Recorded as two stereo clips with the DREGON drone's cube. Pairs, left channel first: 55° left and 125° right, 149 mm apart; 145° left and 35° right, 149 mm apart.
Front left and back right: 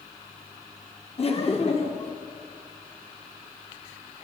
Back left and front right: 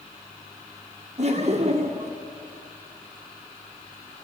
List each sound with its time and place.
1.2 s laughter: 10° left, 1.9 m